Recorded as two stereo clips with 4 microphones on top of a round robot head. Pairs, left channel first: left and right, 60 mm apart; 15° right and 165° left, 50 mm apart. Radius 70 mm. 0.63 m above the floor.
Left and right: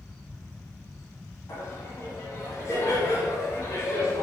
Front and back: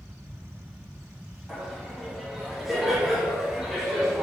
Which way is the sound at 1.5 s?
80° left.